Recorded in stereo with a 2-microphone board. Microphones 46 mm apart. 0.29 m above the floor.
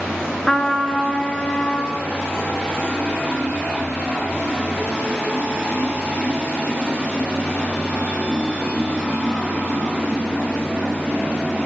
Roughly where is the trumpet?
Centre.